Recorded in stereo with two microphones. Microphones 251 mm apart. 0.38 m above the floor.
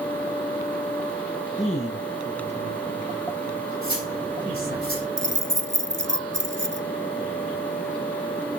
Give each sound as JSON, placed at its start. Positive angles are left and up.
{"t": 1.6, "sound": "a man speaking", "side_deg": 25, "distance_m": 7.5}
{"t": 3.8, "sound": "cutlery clinking", "side_deg": 40, "distance_m": 9.5}
{"t": 5.2, "sound": "keys jangling", "side_deg": -50, "distance_m": 0.8}